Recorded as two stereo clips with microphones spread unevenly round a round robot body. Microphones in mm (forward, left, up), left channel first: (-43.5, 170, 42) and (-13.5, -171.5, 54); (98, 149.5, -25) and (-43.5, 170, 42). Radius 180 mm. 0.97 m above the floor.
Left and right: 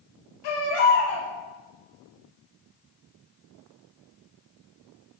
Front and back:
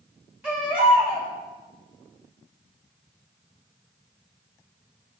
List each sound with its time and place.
0.4 s a baby crying: 85° left, 3.5 m